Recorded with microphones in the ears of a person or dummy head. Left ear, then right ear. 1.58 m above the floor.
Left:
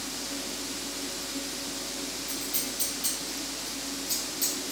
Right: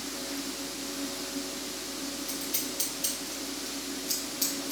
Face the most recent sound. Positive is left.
turn(degrees=-30)  # may be behind; listen again after turning